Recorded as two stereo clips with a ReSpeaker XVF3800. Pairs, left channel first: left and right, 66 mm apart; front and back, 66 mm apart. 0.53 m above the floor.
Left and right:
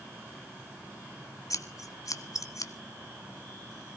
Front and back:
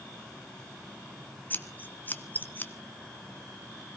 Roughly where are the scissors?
Ahead left.